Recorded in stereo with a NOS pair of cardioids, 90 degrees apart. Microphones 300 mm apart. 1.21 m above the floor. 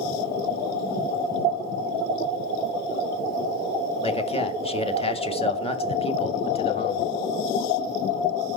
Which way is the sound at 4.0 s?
20° left.